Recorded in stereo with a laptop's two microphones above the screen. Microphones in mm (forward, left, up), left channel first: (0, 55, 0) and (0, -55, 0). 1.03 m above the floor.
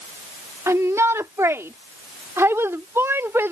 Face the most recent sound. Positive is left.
turn(degrees=-20)  # may be behind; listen again after turning